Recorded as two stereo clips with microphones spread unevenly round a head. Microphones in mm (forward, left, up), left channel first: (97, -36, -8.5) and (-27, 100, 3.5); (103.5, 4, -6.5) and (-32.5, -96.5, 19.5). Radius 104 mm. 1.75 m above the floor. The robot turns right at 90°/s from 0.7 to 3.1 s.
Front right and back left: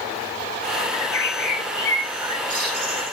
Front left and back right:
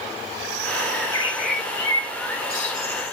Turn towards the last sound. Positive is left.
turn(degrees=140)